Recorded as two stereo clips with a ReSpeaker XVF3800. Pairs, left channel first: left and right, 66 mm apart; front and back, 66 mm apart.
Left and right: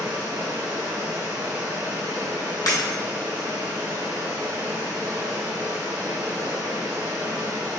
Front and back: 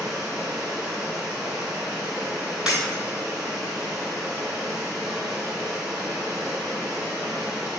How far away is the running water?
About 1.6 m.